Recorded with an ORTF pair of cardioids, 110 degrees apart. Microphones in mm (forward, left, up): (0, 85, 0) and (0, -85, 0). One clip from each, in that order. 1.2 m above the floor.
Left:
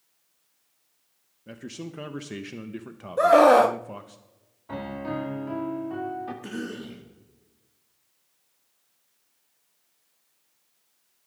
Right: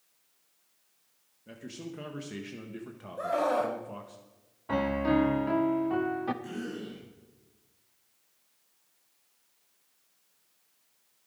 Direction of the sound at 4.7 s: 30° right.